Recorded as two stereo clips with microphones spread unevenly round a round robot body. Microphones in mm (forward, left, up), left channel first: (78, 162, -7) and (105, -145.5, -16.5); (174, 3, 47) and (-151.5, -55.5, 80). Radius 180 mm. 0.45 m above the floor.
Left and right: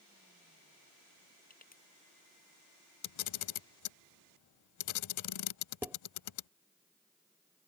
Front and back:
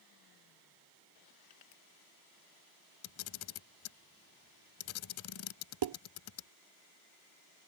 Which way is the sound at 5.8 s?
170° right.